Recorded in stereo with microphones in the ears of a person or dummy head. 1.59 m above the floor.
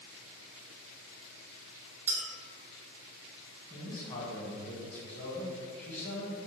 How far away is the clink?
About 0.8 m.